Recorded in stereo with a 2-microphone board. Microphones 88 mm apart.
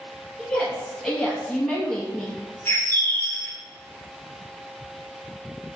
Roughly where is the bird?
Left.